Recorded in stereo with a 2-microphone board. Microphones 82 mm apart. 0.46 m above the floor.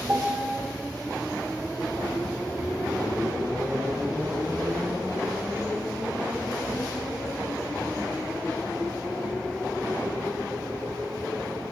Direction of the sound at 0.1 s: 20° right (ahead or behind).